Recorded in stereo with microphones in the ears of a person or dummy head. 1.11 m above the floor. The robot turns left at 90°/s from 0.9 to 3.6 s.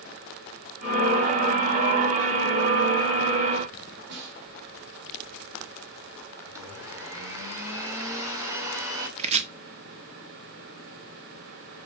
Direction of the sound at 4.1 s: 60° right (ahead or behind).